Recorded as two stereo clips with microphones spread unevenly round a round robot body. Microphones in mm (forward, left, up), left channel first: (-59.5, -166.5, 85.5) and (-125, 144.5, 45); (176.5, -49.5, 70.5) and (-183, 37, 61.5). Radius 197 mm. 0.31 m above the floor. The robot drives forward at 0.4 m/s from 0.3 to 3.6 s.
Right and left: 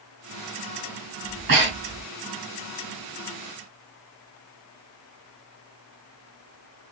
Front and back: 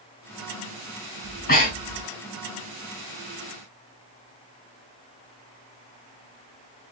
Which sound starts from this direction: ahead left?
Breathing, at 1.2 s.